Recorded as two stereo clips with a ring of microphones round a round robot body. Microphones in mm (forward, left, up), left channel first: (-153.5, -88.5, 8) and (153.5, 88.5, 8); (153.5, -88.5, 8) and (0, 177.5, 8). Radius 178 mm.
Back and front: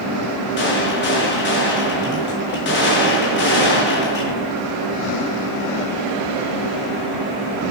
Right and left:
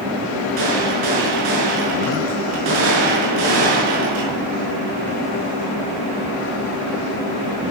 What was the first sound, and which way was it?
A gunshot, 150° left.